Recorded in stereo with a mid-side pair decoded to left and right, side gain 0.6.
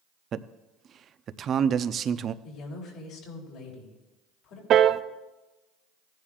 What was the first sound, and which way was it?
A man speaking, 45° right.